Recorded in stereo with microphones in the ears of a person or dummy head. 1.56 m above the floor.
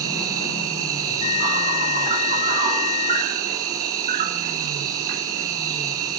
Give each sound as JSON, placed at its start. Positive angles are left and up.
{"t": 0.0, "sound": "an insect", "side_deg": -40, "distance_m": 2.5}
{"t": 1.1, "sound": "a bell", "side_deg": 45, "distance_m": 1.7}